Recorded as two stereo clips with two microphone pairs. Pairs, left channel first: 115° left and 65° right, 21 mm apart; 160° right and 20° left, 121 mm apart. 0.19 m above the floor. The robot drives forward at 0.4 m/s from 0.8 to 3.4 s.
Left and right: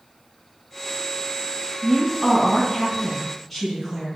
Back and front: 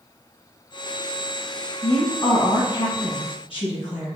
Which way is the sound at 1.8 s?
145° right.